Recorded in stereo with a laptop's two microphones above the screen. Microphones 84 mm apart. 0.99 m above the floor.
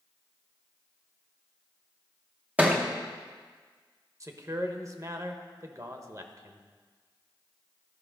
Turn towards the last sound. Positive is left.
turn(degrees=-40)  # may be behind; listen again after turning